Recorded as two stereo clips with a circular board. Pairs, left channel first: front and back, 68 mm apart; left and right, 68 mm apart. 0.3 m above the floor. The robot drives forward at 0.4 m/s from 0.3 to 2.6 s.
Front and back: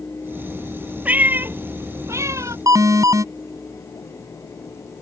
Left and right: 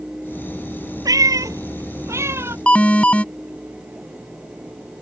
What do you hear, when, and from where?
1.1 s a cat meowing: 110° right; by 2.6 s 140° right
2.7 s an alarm: 160° left